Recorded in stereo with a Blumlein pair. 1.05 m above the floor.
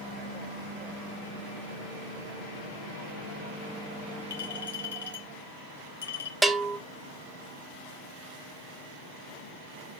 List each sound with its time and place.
4.3 s a clink: 65° left, 3 m
6.4 s a bell: 5° right, 1.2 m